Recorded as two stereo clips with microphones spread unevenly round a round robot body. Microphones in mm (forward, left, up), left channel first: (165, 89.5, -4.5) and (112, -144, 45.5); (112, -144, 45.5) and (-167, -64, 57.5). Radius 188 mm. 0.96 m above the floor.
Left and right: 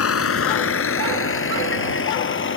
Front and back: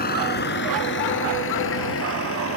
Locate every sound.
0.0 s a vehicle: 50° left; by 2.6 s 40° left